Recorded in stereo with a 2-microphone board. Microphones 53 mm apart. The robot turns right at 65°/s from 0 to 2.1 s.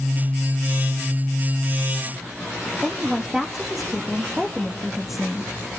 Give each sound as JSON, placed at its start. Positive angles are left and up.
{"t": 2.8, "sound": "a woman speaking", "side_deg": -5, "distance_m": 1.7}